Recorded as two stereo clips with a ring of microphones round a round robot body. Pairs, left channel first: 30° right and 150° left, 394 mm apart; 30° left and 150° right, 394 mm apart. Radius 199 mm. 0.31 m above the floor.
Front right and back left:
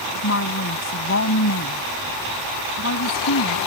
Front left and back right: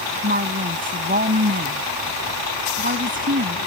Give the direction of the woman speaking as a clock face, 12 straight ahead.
3 o'clock.